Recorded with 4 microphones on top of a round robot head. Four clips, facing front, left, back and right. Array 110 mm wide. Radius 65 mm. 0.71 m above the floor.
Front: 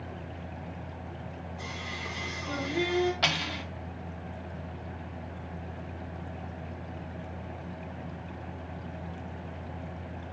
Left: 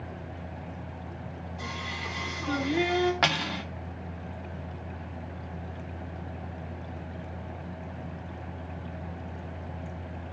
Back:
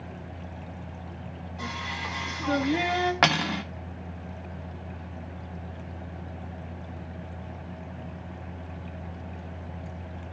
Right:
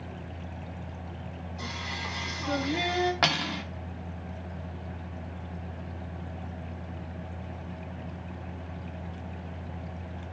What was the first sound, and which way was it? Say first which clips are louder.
Singing: even, back 7 dB; 160° right.